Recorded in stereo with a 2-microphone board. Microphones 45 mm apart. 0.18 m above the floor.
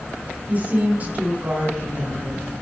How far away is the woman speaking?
About 1.7 m.